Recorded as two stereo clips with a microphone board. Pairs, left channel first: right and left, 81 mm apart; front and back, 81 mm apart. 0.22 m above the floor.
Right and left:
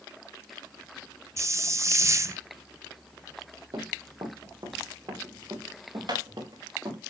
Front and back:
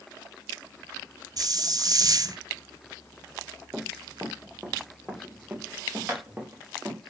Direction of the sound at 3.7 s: 100° left.